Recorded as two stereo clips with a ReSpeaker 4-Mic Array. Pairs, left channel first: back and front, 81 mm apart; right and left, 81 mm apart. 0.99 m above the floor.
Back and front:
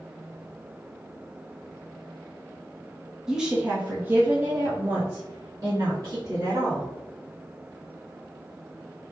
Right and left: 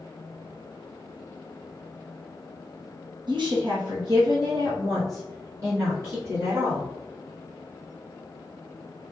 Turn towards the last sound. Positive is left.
turn(degrees=40)